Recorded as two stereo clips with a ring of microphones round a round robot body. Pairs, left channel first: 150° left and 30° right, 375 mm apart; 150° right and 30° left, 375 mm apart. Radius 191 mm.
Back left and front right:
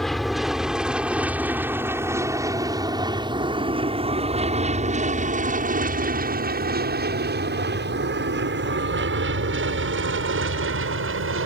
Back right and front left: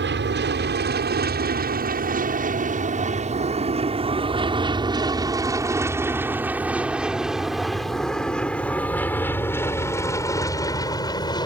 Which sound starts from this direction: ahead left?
An aircraft, at 0.0 s.